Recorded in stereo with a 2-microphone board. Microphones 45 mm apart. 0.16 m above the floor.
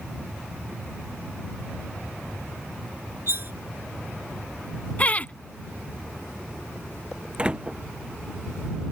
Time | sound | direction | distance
3.3 | cutlery clinking | 55° right (ahead or behind) | ?
5.0 | laughter | 30° left (ahead or behind) | ?
7.4 | a door slam | 20° right (ahead or behind) | ?